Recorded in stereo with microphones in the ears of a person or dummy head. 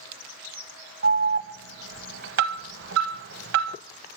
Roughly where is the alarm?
Right.